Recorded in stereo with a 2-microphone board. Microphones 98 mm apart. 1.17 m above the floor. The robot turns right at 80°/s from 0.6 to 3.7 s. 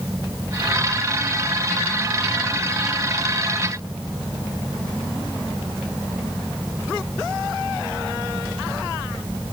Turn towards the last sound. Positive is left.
No sound to turn to.